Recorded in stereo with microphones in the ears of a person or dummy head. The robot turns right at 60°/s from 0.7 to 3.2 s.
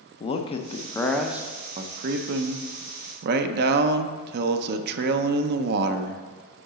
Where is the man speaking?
145° left, 0.6 m; by 6.2 s 65° right, 0.6 m.